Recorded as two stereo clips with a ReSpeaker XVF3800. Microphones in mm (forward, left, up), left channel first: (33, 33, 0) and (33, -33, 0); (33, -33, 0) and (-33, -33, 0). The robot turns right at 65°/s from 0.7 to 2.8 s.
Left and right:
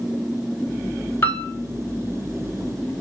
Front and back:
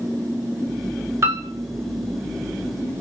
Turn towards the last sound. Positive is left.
turn(degrees=-115)